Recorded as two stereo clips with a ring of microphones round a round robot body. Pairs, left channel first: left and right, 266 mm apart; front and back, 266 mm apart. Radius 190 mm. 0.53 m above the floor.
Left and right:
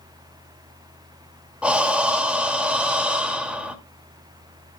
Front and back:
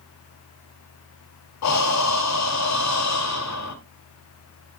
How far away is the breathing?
About 2 m.